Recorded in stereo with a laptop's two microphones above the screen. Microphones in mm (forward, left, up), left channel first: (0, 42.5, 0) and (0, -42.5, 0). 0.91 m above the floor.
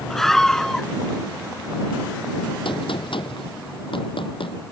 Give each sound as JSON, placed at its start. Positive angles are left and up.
{"t": 0.1, "sound": "a scream", "side_deg": 5}
{"t": 2.6, "sound": "a gunshot", "side_deg": 75}